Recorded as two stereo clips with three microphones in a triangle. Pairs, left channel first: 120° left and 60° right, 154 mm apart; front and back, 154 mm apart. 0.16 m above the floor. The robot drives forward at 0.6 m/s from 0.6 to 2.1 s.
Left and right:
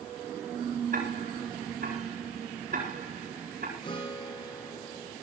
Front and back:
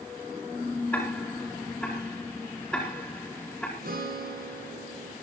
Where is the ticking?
80° right, 8.5 m; by 3.7 s 85° right, 8.5 m.